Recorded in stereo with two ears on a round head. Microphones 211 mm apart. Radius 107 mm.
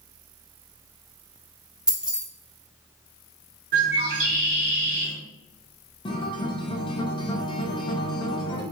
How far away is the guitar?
About 0.5 m.